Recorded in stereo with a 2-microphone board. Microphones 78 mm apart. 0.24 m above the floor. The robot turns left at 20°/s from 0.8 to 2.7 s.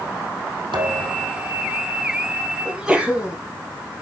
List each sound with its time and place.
0.7 s a thud: 80° right, 5 m; by 1.3 s 75° right (ahead or behind), 5 m
2.6 s a sneeze: 5° right (ahead or behind), 1.9 m